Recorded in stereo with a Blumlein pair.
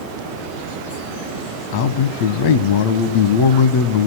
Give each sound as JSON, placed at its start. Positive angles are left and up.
{"t": 1.7, "sound": "a man speaking", "azimuth_deg": 50, "distance_m": 1.2}